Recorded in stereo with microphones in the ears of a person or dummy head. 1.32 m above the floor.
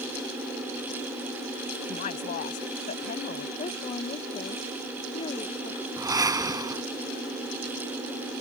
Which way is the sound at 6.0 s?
20° right (ahead or behind).